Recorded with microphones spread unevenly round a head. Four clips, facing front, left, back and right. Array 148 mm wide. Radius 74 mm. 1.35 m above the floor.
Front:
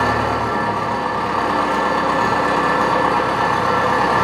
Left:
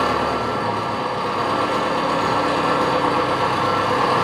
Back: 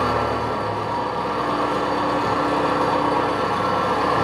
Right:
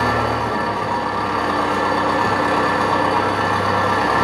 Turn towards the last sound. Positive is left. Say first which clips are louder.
# right 1 dB, front 3 dB
turn(degrees=-35)